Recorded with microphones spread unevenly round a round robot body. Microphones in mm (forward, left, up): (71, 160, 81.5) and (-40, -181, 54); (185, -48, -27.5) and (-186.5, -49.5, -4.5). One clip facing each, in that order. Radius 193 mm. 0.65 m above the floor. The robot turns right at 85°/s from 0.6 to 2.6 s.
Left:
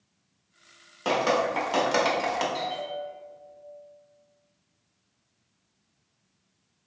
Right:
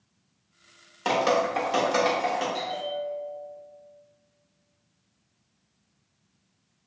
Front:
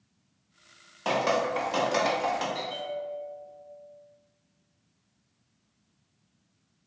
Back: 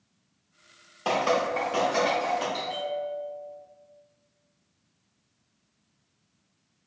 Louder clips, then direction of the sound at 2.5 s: Right 2 dB, back 3 dB; 170° left.